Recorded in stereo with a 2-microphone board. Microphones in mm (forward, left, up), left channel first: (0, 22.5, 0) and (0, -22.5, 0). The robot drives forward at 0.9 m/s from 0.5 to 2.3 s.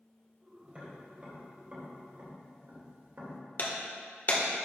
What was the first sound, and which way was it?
Tapping, 30° right (ahead or behind).